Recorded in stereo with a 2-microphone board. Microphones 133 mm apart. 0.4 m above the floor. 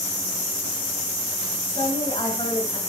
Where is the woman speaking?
40° left (ahead or behind), 3 m.